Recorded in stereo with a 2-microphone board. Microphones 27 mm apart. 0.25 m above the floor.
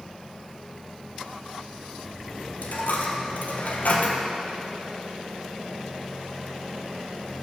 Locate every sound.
2.6 s a dropped coin: 85° left, 1.8 m